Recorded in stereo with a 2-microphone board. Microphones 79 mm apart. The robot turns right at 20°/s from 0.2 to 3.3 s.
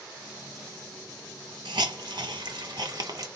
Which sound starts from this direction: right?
A hiss, at 1.6 s.